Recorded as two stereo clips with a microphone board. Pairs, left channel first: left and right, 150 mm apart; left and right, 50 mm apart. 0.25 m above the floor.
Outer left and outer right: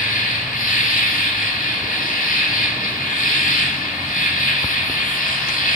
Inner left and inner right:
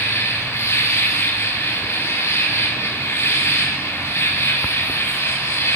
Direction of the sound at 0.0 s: 60° left (ahead or behind).